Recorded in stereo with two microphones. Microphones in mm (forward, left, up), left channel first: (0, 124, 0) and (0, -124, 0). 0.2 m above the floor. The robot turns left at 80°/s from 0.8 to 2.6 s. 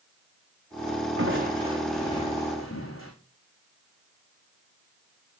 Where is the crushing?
120° right, 4.5 m; by 3.1 s 130° left, 4.5 m.